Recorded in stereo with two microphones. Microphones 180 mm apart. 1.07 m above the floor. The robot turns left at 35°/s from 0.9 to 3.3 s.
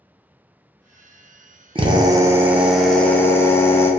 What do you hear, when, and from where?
1.8 s a drill: 145° right, 0.6 m; by 3.9 s 165° left, 0.6 m